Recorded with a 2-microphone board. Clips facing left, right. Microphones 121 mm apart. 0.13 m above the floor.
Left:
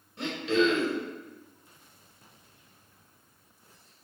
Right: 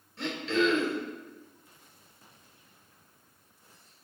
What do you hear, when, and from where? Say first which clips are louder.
0.2 s throat clearing: left 2 dB; 15° left (ahead or behind), 1.6 m